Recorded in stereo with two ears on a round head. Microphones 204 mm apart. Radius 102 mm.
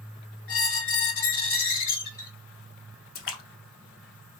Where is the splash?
60° left (ahead or behind), 0.8 m.